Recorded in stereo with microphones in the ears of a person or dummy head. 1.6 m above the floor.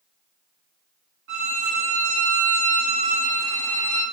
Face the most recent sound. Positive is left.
turn(degrees=-70)  # may be behind; listen again after turning